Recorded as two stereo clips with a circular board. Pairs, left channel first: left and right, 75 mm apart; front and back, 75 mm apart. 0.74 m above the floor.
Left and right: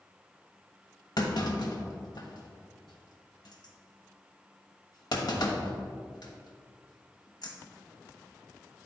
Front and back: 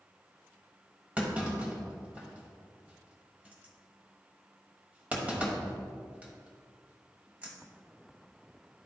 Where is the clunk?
110° left, 1.2 m.